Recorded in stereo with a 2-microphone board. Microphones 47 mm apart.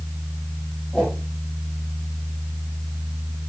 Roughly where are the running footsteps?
I don't hear running footsteps.